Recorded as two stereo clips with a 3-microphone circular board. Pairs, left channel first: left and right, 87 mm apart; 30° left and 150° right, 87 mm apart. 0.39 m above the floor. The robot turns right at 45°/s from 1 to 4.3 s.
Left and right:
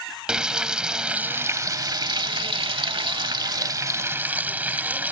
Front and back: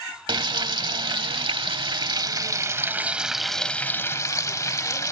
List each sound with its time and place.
0.3 s frying: 170° right; by 5.1 s 20° right